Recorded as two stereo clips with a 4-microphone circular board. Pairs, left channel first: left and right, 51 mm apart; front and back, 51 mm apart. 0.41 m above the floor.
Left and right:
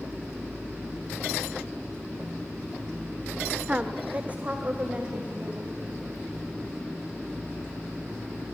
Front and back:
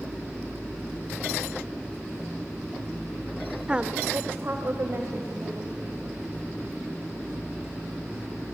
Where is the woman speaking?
125° right, 0.8 m; by 5.8 s 150° right, 2.5 m.